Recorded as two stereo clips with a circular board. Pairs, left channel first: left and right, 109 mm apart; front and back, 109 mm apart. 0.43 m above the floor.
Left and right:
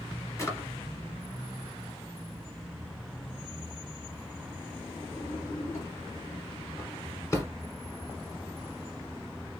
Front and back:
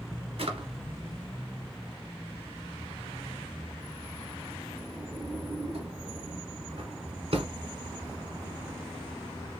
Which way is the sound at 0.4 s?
155° left.